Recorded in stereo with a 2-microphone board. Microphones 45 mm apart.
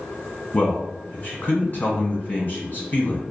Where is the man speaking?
40° left (ahead or behind), 1.5 m.